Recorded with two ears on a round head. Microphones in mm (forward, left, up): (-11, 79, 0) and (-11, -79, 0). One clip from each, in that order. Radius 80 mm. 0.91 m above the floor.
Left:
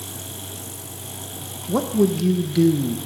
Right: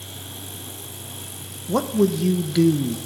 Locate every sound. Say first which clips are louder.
1.7 s a man speaking: even; 25° right (ahead or behind), 0.8 m